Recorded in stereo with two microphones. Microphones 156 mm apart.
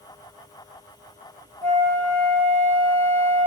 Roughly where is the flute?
Right.